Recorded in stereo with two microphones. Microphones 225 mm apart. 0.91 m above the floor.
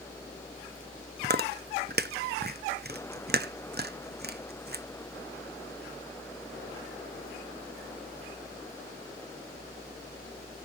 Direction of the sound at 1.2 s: 50° right (ahead or behind).